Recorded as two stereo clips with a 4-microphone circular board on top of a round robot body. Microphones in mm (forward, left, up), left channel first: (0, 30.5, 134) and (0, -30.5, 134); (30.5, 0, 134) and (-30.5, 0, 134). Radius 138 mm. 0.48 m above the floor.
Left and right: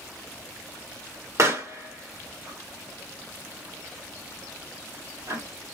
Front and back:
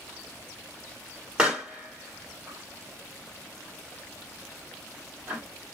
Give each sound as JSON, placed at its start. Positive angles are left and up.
{"t": 1.4, "sound": "a pop", "azimuth_deg": -105, "distance_m": 2.0}